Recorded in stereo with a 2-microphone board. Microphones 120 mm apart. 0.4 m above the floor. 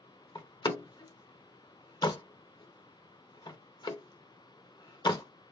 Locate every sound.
0.3 s a door slam: 40° left (ahead or behind), 0.5 m